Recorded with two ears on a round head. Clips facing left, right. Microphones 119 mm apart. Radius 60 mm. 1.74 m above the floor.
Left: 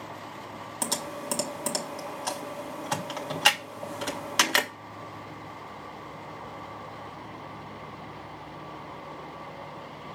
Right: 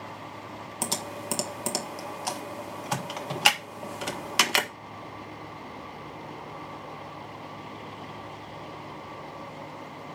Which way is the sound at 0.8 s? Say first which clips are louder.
Left 1 dB; 5° right (ahead or behind).